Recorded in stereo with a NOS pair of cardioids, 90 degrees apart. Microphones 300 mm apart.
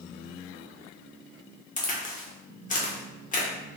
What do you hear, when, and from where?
1.8 s a crack: 30° left, 1.3 m